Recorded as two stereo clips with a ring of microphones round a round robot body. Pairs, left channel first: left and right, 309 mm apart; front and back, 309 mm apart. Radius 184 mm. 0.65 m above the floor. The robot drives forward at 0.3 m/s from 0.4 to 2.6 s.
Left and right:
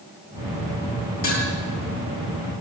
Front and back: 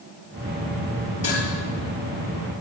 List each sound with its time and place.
1.2 s dishes clattering: 70° left, 9.5 m